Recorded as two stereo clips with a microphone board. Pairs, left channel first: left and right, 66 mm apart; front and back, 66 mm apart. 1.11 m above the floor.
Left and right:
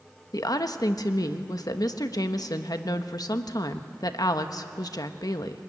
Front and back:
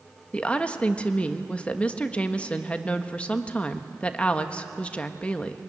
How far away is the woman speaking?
About 1.2 m.